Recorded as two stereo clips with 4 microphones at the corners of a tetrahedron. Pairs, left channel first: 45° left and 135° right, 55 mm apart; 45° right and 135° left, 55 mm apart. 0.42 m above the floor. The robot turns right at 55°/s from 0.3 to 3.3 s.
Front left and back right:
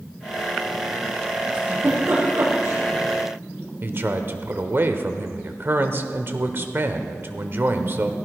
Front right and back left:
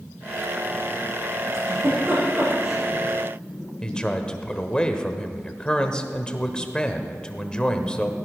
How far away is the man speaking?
About 1.1 m.